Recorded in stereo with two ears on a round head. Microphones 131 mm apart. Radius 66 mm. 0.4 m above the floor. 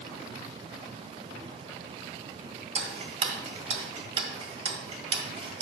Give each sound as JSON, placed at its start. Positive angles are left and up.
{"t": 2.8, "sound": "ticking", "side_deg": -40, "distance_m": 1.4}